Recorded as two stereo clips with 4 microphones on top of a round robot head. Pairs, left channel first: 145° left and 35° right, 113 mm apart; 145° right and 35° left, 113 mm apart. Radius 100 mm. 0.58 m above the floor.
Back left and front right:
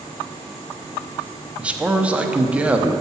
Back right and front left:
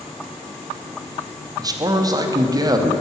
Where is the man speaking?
35° left, 1.0 m.